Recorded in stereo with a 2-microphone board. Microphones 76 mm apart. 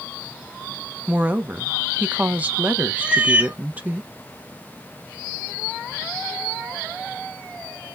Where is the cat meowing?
15° right (ahead or behind), 0.7 m.